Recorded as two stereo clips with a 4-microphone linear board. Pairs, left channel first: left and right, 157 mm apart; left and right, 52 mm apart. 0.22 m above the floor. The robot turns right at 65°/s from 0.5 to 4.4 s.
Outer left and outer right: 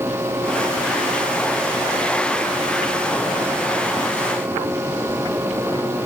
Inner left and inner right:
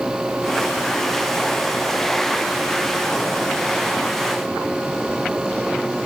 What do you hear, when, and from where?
Only background noise.